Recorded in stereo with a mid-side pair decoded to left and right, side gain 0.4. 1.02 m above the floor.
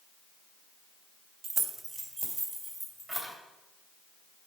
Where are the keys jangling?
45° right, 1.1 m; by 3.3 s 5° right, 3.5 m.